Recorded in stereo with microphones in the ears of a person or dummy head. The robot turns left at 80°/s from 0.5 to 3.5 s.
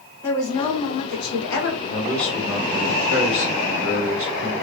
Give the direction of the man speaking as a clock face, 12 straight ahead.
11 o'clock.